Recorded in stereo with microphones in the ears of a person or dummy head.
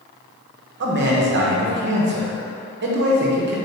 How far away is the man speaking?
About 0.7 m.